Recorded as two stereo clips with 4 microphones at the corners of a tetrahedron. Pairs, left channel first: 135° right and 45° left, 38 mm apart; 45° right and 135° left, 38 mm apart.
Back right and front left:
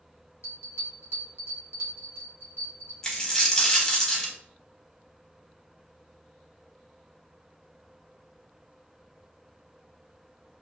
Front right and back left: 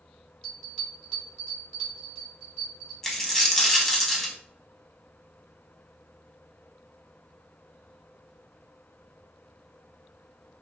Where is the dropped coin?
100° right, 0.6 m.